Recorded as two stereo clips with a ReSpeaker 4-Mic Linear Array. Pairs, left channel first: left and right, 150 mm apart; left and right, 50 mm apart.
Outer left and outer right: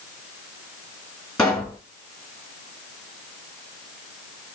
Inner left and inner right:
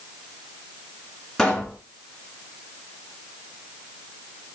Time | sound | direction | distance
1.4 | a pop | 5° left (ahead or behind) | 2.5 m